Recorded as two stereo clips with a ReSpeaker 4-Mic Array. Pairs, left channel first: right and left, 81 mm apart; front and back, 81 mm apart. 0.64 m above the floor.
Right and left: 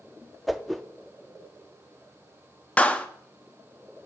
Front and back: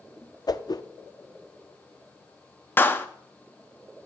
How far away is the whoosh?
About 0.5 m.